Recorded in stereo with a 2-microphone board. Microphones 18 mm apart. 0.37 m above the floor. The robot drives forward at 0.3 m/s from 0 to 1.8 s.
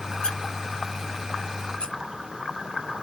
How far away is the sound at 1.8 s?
About 1.7 m.